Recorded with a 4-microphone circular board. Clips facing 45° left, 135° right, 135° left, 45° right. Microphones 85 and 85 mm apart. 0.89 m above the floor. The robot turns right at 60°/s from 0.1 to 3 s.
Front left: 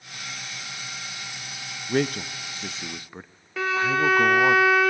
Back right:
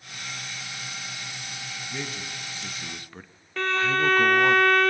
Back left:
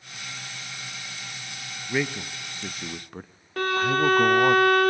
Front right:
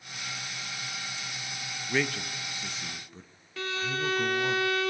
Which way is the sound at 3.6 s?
125° left.